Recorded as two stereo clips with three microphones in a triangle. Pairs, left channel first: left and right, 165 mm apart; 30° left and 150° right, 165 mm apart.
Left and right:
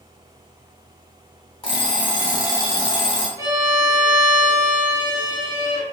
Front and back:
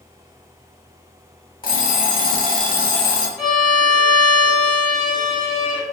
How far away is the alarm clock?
About 0.7 m.